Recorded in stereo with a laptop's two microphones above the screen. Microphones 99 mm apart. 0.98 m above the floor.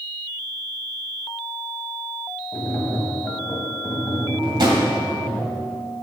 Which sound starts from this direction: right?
A drawer, at 4.4 s.